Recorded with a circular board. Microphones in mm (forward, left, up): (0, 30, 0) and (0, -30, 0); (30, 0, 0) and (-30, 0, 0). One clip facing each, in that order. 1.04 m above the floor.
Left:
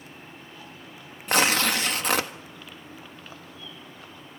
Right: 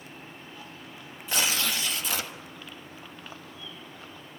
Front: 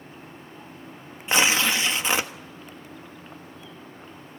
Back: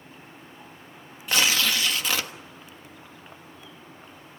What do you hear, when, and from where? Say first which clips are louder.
1.3 s tearing paper: left 7 dB, front 2 dB; 65° left, 1.4 m